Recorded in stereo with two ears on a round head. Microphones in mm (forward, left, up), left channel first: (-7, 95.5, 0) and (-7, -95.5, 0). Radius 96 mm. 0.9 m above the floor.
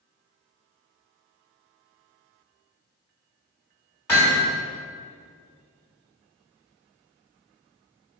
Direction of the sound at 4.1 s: 10° left (ahead or behind).